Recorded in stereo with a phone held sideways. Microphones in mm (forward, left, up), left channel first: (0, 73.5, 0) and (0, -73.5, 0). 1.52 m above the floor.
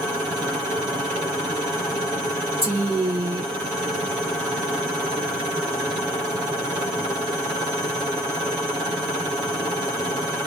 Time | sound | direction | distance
2.6 | a woman speaking | 40° right (ahead or behind) | 1.0 m